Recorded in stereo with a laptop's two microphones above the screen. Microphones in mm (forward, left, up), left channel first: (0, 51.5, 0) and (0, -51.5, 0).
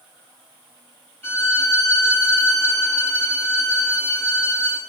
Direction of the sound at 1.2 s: 15° left (ahead or behind).